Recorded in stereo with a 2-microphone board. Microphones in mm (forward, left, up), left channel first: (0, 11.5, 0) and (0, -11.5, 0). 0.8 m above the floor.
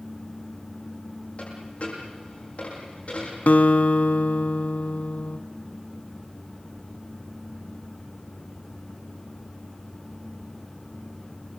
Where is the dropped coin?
55° left (ahead or behind), 9 m.